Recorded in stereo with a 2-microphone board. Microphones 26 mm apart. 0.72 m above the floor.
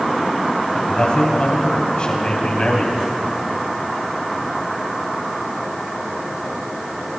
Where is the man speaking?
45° left (ahead or behind), 4.5 m.